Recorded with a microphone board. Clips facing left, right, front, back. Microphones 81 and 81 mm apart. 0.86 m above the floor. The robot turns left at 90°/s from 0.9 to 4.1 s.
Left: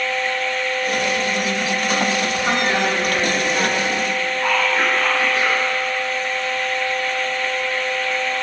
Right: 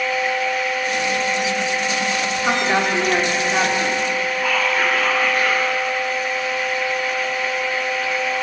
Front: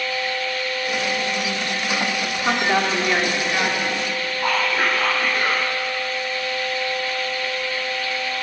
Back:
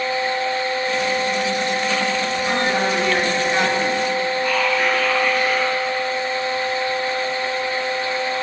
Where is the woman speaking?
5° right, 2.5 m; by 4.3 s 155° right, 2.5 m.